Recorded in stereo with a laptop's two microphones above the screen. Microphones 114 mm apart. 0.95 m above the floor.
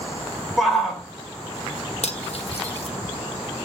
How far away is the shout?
About 4 m.